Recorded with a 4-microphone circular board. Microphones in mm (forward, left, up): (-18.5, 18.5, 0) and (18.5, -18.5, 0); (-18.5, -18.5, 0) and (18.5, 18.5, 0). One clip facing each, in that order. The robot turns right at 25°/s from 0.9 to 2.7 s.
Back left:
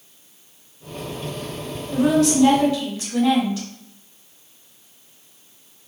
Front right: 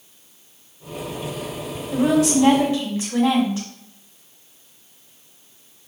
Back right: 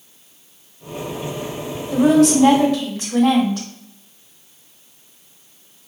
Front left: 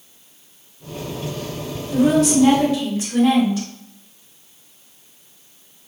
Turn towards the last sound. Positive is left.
turn(degrees=-110)